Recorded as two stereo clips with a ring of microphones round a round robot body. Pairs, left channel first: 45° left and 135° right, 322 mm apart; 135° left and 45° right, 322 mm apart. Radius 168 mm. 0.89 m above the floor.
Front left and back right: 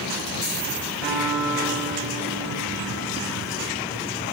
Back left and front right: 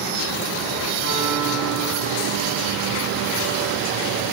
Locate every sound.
1.0 s a piano: 135° left, 6.5 m